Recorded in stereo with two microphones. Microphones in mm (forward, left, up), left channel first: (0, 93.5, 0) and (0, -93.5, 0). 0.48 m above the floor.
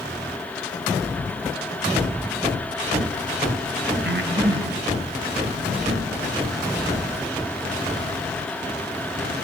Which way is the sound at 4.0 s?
70° right (ahead or behind).